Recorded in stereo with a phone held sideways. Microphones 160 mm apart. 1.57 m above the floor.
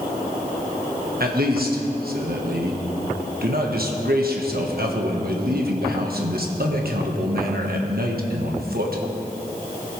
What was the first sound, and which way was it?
A man speaking, 70° right (ahead or behind).